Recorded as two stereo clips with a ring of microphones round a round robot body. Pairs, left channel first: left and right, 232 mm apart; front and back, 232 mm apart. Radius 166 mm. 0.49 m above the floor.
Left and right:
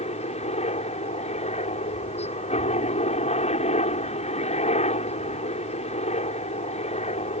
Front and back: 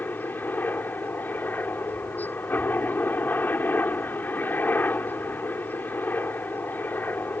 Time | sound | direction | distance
0.0 | a helicopter | 75° left | ?